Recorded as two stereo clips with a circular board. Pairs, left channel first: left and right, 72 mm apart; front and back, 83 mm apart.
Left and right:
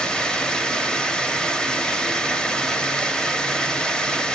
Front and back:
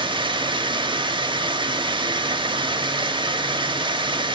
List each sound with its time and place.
0.0 s running water: 170° left, 0.9 m